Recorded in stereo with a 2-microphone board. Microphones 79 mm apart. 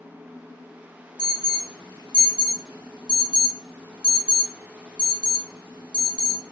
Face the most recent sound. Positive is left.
turn(degrees=90)